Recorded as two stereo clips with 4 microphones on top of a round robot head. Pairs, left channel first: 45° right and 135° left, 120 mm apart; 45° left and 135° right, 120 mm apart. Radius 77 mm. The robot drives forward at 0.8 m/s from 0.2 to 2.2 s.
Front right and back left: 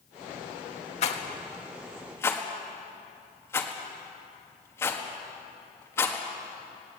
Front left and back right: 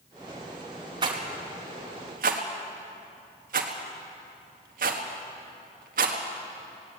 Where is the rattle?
75° right, 1.6 m; by 6.2 s 115° right, 1.7 m.